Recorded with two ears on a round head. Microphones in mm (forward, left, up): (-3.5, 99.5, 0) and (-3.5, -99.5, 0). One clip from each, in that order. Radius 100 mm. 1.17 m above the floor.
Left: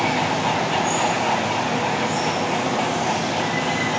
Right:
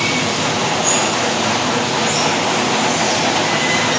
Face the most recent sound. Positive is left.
turn(degrees=-60)  # may be behind; listen again after turning